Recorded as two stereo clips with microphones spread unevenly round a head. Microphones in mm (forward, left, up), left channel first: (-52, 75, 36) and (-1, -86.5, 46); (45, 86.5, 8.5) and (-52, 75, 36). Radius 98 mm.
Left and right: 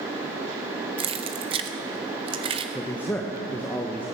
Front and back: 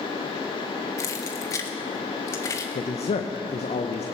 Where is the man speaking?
25° left, 1.1 m.